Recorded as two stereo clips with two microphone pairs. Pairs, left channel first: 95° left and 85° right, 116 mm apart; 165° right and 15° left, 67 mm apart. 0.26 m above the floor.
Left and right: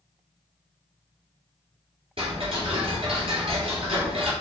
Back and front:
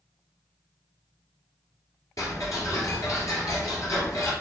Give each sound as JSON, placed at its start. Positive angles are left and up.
{"t": 2.2, "sound": "ticking", "azimuth_deg": -125, "distance_m": 2.0}